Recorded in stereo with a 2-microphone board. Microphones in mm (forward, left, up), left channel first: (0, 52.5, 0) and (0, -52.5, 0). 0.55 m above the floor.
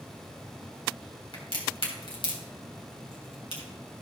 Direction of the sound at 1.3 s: 65° left (ahead or behind).